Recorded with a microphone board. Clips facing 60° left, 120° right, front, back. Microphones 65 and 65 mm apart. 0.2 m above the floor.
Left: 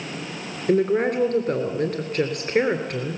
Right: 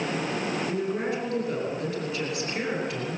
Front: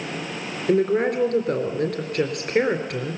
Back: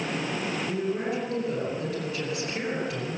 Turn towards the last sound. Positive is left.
turn(degrees=30)